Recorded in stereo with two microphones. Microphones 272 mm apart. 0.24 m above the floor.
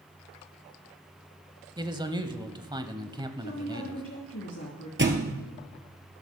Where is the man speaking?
15° right (ahead or behind), 0.9 m.